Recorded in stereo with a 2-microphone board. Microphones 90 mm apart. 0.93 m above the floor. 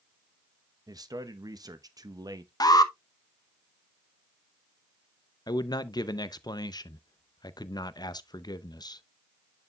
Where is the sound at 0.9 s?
45° right (ahead or behind), 0.8 m.